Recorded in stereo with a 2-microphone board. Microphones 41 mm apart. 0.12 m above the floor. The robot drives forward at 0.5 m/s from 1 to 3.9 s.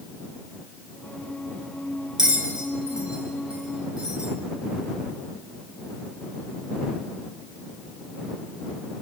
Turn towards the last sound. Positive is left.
turn(degrees=-20)  # may be behind; listen again after turning